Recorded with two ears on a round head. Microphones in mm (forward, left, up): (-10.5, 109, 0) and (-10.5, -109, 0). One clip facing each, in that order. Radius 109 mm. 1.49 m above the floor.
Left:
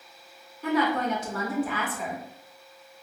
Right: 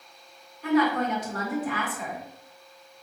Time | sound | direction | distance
0.6 | a woman speaking | 85° left | 1.5 m